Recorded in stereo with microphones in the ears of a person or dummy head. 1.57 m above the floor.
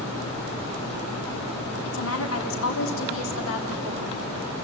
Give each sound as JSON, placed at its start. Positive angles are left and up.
{"t": 1.9, "sound": "a woman speaking", "side_deg": 80, "distance_m": 3.5}